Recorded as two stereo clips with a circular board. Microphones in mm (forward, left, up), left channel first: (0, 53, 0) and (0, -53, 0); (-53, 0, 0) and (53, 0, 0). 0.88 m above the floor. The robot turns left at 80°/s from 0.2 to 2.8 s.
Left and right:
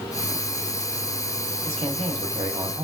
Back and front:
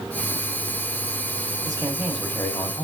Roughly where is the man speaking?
Ahead right.